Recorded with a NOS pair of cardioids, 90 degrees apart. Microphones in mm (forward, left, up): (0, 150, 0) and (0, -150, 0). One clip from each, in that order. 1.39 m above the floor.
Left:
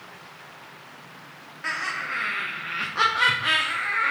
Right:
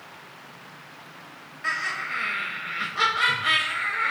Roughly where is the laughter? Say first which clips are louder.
Right 1 dB; ahead.